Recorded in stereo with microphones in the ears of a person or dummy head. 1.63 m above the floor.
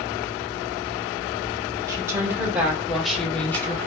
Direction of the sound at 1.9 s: 15° right (ahead or behind).